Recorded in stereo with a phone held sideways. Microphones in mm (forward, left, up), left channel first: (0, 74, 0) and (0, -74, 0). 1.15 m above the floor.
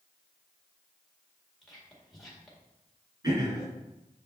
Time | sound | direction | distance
1.6 | whispering | centre (ahead or behind) | 1.9 m
3.2 | throat clearing | 30° right (ahead or behind) | 3 m